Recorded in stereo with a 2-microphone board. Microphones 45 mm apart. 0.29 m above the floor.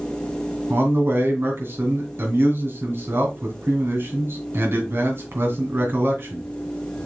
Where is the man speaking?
60° right (ahead or behind), 2.5 m.